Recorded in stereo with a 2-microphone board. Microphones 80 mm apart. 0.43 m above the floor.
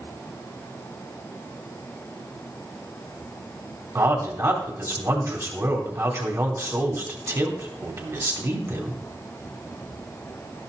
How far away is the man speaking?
About 2.5 m.